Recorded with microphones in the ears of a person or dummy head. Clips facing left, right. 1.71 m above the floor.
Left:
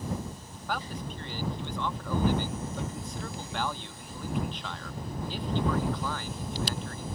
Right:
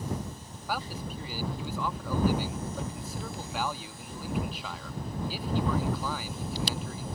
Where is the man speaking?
5° right (ahead or behind).